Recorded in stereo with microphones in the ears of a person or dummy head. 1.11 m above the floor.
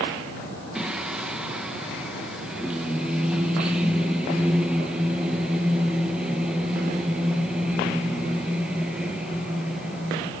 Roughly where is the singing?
Centre.